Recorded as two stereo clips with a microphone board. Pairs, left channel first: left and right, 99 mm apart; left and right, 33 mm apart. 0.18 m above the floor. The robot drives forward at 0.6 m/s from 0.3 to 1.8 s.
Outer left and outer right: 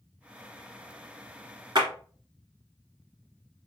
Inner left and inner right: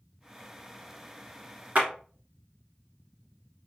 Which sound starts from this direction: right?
A clap, at 1.8 s.